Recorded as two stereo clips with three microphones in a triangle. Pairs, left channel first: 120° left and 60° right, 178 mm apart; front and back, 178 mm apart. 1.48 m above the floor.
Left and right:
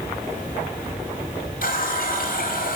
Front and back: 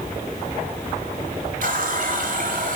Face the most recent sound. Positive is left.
turn(degrees=150)